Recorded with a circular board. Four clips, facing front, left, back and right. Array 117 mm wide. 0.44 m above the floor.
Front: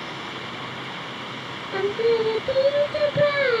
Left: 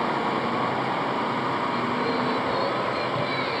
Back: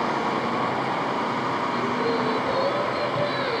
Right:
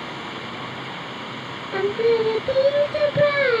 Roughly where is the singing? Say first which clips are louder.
Right 6 dB, front 9 dB; ahead right.